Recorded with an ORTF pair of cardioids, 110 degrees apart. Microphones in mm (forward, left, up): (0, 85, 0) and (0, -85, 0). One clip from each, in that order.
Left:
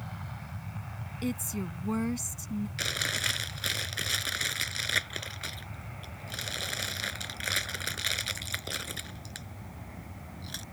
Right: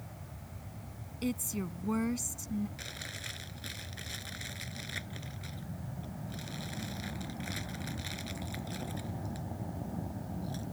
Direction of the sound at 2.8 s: 65° left.